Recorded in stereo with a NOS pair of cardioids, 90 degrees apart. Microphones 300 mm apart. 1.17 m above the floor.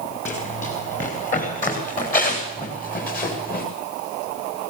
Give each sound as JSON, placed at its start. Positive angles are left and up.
{"t": 0.2, "sound": "running footsteps", "azimuth_deg": 25, "distance_m": 9.0}